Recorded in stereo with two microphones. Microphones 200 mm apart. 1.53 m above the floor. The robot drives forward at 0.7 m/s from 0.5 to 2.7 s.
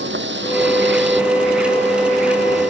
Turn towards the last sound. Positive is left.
turn(degrees=-65)  # may be behind; listen again after turning